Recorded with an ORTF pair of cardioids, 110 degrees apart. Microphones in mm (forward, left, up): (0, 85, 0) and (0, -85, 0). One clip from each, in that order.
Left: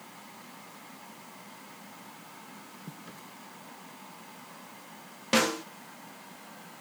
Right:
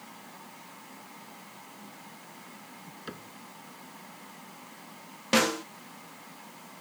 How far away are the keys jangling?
No keys jangling in this recording.